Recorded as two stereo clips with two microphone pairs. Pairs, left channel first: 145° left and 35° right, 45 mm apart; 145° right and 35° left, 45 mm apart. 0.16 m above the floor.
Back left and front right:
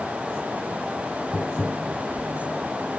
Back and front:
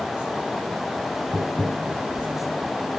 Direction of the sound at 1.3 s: 65° left.